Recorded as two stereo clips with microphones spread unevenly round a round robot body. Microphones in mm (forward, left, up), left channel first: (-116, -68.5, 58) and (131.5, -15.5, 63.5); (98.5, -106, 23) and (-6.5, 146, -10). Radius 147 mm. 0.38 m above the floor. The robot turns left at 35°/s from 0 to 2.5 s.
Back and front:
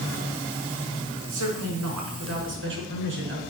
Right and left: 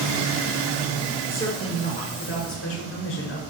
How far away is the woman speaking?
About 6 m.